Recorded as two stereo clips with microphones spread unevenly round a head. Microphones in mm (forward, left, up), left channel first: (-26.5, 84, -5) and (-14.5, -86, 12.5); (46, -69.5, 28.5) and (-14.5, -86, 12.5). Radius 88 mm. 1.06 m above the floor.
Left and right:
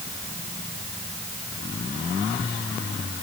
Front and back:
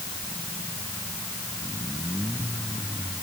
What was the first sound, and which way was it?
Only background noise.